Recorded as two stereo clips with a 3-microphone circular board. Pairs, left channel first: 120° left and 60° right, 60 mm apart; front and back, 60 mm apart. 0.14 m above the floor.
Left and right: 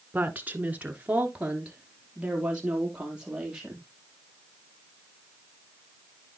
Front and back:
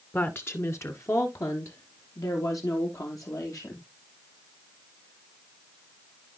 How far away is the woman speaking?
About 1.2 m.